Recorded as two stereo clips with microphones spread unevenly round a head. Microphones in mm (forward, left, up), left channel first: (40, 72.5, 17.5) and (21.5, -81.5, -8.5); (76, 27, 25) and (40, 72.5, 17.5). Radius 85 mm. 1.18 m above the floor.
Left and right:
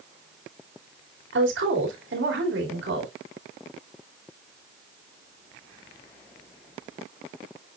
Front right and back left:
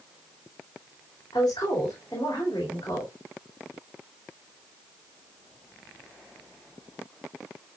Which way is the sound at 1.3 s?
110° right.